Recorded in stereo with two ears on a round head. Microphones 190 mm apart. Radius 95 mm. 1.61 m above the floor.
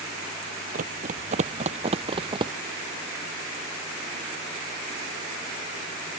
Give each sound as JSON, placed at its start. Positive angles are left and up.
{"t": 0.7, "sound": "running footsteps", "side_deg": -40}